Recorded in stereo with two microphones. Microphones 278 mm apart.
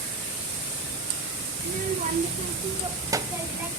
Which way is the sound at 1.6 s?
30° right (ahead or behind).